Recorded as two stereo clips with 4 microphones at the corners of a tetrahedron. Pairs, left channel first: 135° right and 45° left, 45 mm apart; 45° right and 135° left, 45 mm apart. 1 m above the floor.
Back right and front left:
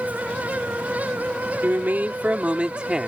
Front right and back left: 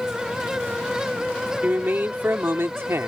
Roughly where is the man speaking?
Left.